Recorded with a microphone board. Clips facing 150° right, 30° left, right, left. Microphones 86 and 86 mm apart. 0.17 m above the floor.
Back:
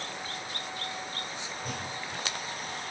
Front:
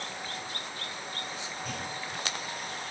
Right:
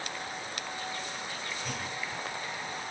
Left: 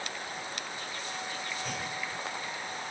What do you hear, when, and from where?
1.6 s a clunk: straight behind, 3 m